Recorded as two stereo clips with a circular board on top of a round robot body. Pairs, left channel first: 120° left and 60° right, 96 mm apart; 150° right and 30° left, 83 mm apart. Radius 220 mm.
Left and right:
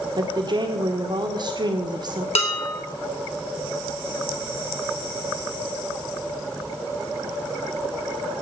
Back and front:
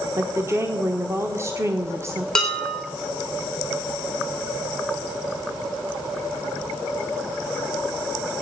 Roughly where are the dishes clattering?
Behind left.